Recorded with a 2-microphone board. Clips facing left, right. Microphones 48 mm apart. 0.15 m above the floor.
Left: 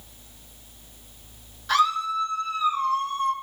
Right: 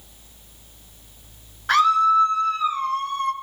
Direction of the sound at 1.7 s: 45° right (ahead or behind).